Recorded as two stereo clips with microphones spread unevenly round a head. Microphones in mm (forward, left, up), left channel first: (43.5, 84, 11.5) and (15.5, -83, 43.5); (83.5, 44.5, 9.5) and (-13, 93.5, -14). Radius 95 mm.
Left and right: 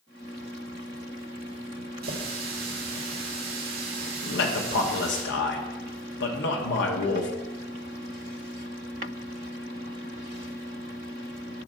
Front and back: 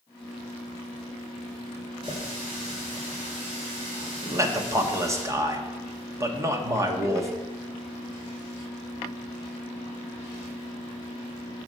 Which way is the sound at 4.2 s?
90° left.